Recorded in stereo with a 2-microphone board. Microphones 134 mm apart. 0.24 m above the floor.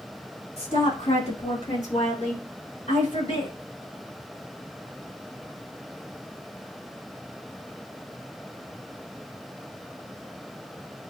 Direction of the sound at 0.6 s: 50° left (ahead or behind).